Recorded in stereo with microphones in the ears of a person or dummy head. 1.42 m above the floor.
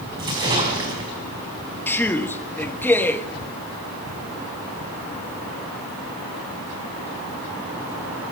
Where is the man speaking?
10° left (ahead or behind), 1.5 m.